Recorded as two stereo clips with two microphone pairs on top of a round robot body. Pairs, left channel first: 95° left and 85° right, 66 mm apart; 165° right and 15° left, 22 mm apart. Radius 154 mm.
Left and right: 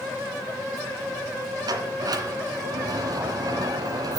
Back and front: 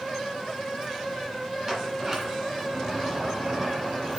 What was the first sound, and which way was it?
A sliding door, 60° right.